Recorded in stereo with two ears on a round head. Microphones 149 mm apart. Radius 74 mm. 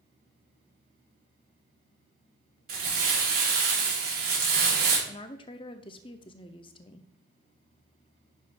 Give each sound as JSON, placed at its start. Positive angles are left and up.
{"t": 2.7, "sound": "crumpling", "side_deg": -60, "distance_m": 3.5}
{"t": 5.1, "sound": "a woman speaking", "side_deg": 30, "distance_m": 0.7}